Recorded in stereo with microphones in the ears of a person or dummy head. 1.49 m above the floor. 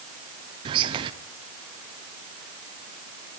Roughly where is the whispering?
Right.